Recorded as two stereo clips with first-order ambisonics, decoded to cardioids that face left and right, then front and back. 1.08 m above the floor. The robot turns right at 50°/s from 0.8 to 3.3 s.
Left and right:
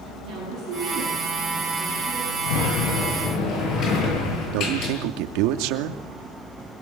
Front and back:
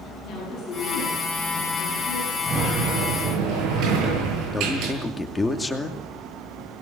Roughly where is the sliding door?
Left.